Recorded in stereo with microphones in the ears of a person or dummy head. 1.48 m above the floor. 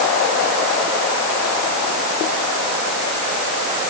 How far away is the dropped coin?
I don't hear a dropped coin.